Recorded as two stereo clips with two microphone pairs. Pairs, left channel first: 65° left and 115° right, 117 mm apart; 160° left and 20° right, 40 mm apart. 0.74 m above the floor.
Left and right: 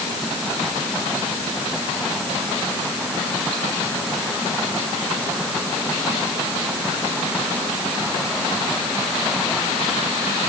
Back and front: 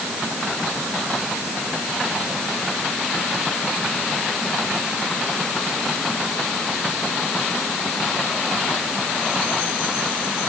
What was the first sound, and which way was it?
Only background noise.